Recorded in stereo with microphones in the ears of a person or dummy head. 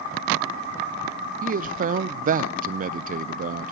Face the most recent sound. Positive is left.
turn(degrees=-45)  # may be behind; listen again after turning